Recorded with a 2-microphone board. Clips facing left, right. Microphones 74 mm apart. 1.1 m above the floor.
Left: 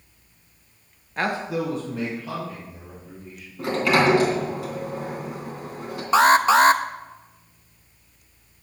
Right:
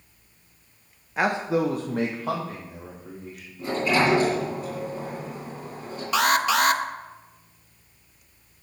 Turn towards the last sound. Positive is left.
turn(degrees=35)  # may be behind; listen again after turning